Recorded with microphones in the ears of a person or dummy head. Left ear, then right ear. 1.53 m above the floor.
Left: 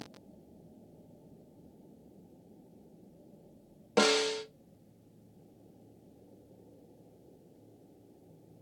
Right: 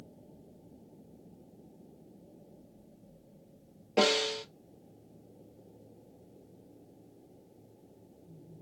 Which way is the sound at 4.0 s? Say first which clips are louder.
Even; 50° left (ahead or behind).